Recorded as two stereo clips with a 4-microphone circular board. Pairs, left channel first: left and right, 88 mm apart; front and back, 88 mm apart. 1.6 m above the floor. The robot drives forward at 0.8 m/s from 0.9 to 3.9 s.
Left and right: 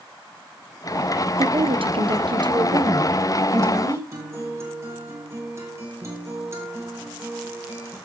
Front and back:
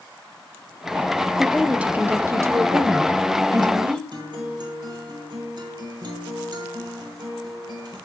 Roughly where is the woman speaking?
Right.